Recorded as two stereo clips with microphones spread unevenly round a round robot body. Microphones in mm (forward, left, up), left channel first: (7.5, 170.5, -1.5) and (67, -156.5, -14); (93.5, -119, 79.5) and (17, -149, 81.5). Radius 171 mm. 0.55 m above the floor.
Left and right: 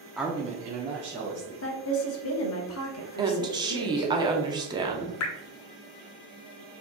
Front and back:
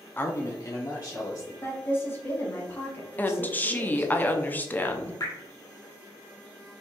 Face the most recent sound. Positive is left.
turn(degrees=65)